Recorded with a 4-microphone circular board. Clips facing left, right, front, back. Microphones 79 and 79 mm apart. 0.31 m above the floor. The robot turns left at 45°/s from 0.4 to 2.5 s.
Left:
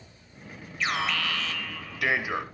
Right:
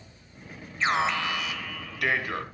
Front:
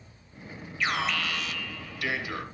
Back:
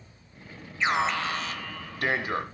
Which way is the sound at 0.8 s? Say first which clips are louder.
Right 3 dB, back 4 dB; 130° right.